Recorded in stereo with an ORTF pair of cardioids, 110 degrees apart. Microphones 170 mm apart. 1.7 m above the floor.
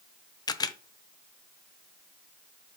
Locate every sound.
0.5 s a camera shutter: 25° left, 0.6 m